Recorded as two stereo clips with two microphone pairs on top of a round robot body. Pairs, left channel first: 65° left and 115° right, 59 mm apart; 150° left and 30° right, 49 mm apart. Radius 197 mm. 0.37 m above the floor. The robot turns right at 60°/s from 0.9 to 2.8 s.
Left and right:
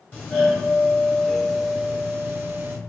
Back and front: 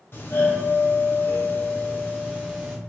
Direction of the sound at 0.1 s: 120° left.